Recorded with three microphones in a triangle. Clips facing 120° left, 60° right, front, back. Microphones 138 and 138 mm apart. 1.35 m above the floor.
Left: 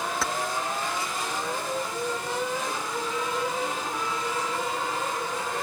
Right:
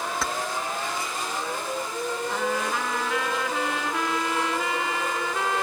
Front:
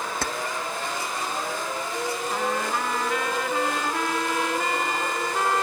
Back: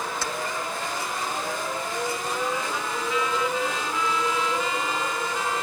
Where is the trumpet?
35° right.